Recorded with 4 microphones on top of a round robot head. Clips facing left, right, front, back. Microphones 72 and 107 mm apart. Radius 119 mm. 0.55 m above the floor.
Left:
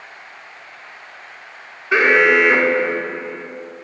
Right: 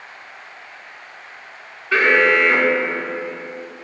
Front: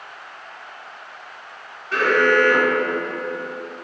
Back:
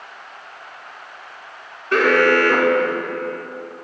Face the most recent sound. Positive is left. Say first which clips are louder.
# left 2 dB, back 2 dB
turn(degrees=165)